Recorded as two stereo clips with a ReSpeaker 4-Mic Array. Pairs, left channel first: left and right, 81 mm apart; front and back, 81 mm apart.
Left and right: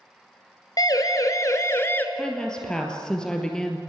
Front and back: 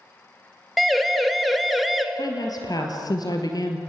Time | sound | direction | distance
0.8 | a siren | 90° left | 2 m
2.1 | a woman speaking | 10° left | 2.5 m